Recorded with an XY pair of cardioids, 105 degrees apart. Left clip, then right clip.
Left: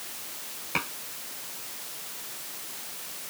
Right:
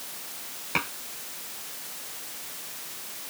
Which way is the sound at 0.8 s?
10° right.